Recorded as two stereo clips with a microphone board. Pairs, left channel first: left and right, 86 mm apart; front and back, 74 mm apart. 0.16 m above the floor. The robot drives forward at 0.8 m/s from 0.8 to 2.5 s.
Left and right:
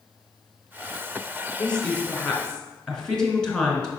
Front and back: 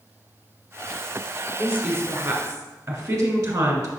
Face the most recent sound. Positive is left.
turn(degrees=165)